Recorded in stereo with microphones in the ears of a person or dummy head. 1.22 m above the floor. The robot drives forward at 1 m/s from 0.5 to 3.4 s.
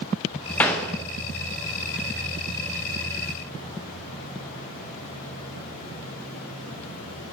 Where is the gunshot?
Centre (ahead or behind), 0.6 m.